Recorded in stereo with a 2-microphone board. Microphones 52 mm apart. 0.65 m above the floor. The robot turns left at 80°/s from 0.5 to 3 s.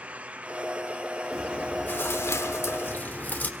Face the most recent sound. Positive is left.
turn(degrees=40)